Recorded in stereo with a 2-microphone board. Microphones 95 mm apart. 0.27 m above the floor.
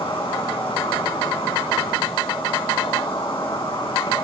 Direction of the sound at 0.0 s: 60° left (ahead or behind).